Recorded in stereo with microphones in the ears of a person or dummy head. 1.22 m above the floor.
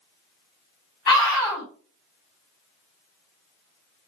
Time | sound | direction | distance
1.1 | a scream | 20° left (ahead or behind) | 4.5 m